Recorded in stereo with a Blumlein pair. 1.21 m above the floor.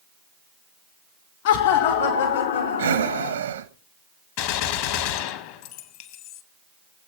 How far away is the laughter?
About 2 m.